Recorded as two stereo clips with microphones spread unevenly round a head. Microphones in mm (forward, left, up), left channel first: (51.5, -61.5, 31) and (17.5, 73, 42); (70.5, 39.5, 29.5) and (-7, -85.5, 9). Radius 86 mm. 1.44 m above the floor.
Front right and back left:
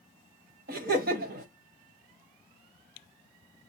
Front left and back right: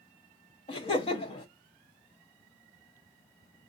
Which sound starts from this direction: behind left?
Laughter, at 0.7 s.